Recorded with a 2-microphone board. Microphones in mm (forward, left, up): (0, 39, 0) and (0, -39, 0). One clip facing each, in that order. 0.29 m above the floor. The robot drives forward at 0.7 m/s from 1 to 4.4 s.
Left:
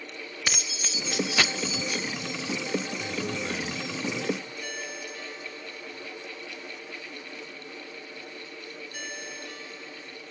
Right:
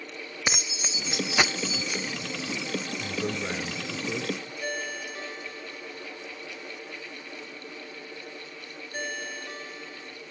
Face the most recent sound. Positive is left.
turn(degrees=-40)  # may be behind; listen again after turning